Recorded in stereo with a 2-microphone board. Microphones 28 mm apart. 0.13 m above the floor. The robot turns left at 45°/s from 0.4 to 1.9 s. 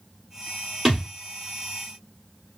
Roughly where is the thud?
Centre.